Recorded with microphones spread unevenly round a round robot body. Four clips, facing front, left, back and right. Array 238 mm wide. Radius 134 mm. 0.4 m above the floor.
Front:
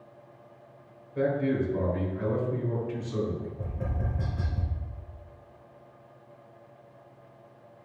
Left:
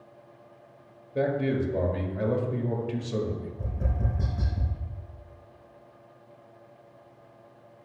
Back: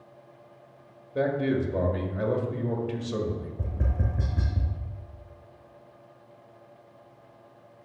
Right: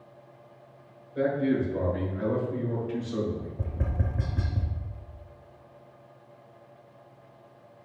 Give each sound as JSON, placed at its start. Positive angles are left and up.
{"t": 1.1, "sound": "a man speaking", "azimuth_deg": 130, "distance_m": 1.9}
{"t": 3.6, "sound": "tapping", "azimuth_deg": -140, "distance_m": 2.0}